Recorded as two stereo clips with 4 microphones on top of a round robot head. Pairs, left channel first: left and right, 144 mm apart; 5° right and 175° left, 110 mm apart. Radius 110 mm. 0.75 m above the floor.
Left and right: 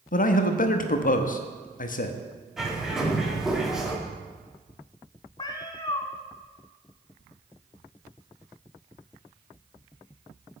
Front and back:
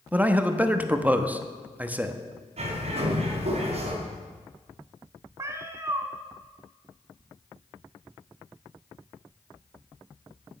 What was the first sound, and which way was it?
A man speaking, 100° left.